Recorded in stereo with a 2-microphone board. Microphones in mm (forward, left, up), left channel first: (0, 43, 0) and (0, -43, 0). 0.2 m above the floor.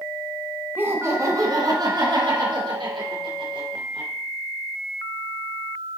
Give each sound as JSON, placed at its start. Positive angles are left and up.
{"t": 0.8, "sound": "laughter", "side_deg": -25, "distance_m": 1.4}